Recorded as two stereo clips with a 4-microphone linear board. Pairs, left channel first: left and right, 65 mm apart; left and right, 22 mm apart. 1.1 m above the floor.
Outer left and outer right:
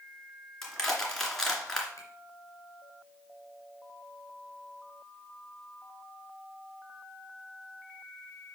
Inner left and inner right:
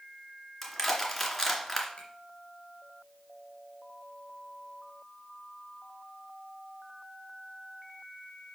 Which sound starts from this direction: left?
A finger snap, at 2.0 s.